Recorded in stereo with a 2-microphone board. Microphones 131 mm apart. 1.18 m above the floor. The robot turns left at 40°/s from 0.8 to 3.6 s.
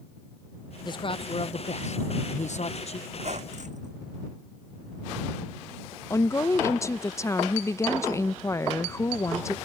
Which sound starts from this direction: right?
A squeak, at 3.1 s.